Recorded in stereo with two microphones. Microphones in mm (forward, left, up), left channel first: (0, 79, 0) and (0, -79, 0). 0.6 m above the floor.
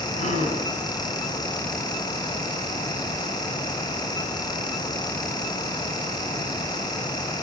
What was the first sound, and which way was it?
A gasp, 50° left (ahead or behind).